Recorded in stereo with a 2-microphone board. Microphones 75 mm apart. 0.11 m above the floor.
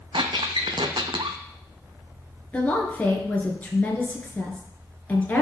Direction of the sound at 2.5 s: 20° left (ahead or behind).